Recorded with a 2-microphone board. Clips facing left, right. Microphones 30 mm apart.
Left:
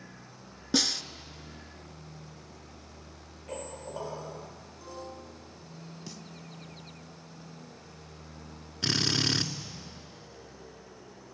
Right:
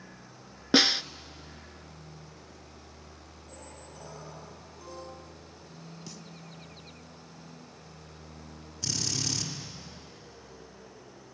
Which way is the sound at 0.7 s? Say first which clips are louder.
Right 6 dB; 40° right (ahead or behind).